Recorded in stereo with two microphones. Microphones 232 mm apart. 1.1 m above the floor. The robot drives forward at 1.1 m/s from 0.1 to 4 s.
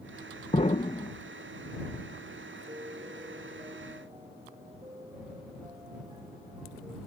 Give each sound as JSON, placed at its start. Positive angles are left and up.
{"t": 0.5, "sound": "an explosion", "side_deg": 30}
{"t": 2.7, "sound": "a piano", "side_deg": -25}